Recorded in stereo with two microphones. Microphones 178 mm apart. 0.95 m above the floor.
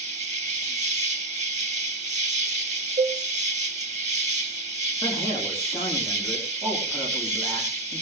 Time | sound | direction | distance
0.0 | an insect | 40° right (ahead or behind) | 1.0 m
3.0 | a cowbell | 45° right (ahead or behind) | 1.3 m
5.0 | a man speaking | 15° left (ahead or behind) | 4.5 m